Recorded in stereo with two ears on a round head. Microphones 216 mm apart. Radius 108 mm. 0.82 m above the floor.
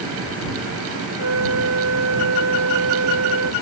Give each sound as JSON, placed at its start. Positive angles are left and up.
{"t": 1.2, "sound": "a flute", "side_deg": -60}